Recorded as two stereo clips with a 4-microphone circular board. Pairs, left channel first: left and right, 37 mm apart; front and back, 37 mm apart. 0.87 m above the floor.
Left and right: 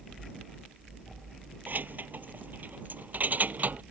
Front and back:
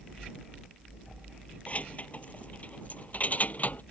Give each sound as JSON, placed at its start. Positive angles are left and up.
{"t": 1.7, "sound": "keys jangling", "azimuth_deg": -55}